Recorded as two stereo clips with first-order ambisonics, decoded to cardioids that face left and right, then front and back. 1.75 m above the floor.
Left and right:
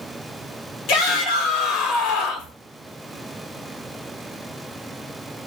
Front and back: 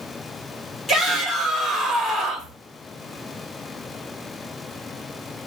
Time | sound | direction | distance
0.9 | a shout | 70° left | 1.1 m